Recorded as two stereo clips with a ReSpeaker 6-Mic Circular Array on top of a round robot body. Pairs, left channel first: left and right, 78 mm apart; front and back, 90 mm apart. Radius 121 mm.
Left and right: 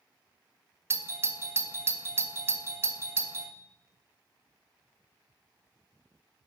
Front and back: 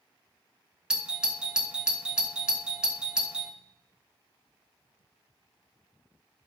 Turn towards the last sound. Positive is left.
turn(degrees=-110)